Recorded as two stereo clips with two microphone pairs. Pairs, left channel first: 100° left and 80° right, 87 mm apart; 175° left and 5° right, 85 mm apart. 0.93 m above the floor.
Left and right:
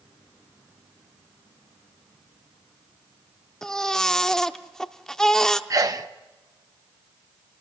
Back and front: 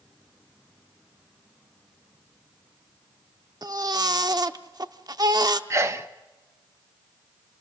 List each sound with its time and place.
3.6 s a baby crying: 15° left, 0.7 m
5.7 s a sneeze: 50° right, 0.6 m